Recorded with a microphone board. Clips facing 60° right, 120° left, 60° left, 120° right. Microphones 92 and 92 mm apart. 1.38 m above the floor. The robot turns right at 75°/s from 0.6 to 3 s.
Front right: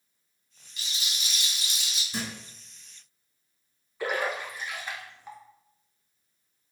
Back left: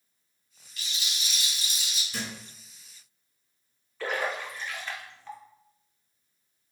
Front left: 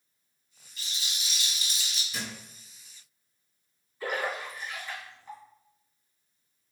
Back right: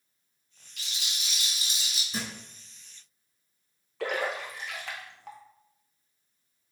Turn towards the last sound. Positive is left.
turn(degrees=-135)